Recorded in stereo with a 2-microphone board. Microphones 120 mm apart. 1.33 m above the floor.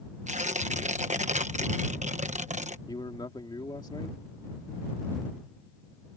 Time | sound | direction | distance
0.3 | tearing paper | 80° right | ?
2.9 | a man speaking | 40° left (ahead or behind) | ?